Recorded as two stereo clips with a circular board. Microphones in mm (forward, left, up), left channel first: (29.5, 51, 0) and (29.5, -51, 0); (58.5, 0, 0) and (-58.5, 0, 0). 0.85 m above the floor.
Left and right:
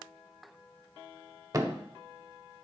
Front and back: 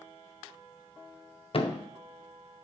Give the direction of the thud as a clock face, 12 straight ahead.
1 o'clock.